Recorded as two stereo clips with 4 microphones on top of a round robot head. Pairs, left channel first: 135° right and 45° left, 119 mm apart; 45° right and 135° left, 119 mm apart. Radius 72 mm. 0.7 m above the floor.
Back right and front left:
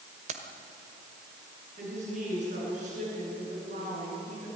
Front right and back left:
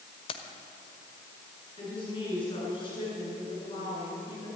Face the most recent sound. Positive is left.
turn(degrees=10)